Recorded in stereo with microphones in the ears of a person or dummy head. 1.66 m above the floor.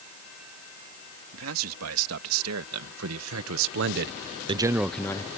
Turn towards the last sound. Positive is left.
turn(degrees=20)  # may be behind; listen again after turning